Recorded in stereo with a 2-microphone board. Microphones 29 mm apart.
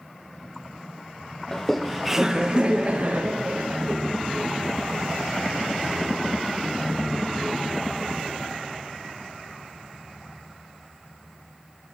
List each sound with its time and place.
1.5 s laughter: 15° left (ahead or behind), 0.8 m; by 4.0 s 60° right (ahead or behind), 1.4 m